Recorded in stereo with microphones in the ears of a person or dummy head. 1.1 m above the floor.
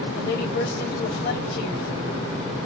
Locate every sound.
0.1 s a woman speaking: 50° left (ahead or behind), 2 m